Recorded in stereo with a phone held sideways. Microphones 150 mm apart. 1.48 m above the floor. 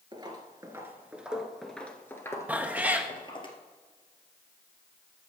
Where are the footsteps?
30° right (ahead or behind), 1.6 m; by 3.5 s 35° left (ahead or behind), 2 m.